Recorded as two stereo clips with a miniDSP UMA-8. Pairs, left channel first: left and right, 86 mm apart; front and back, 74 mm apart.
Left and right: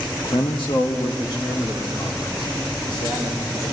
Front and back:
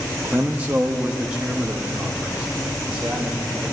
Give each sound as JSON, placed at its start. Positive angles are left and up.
{"t": 0.2, "sound": "a man speaking", "azimuth_deg": 115, "distance_m": 1.0}